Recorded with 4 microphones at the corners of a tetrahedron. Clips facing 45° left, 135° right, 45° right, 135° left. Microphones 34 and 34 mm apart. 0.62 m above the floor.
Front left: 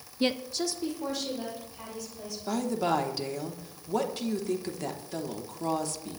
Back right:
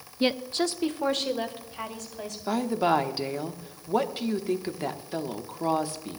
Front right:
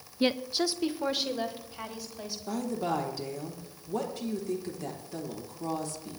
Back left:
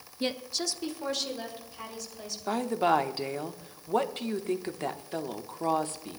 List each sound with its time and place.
0.2 s a woman speaking: 65° right, 0.5 m; by 2.4 s 115° right, 3.5 m
2.5 s a woman speaking: 160° left, 1.1 m